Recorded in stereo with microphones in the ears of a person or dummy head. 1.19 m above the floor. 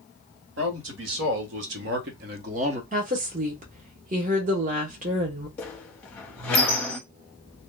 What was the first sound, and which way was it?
A man speaking, 75° right (ahead or behind).